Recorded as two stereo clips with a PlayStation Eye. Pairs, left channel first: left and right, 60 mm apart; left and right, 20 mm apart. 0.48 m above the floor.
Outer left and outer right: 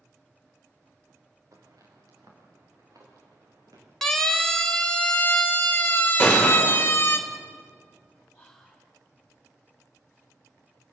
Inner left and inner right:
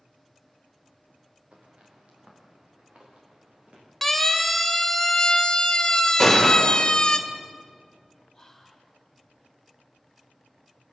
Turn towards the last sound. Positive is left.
turn(degrees=5)  # may be behind; listen again after turning